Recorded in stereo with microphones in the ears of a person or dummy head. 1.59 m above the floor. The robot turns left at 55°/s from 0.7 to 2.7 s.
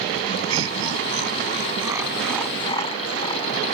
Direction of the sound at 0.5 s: 85° right.